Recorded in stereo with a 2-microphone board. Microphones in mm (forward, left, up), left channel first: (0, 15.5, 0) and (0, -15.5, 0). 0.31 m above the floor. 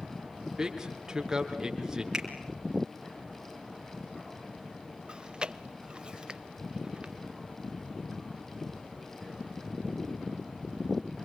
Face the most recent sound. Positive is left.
turn(degrees=-30)  # may be behind; listen again after turning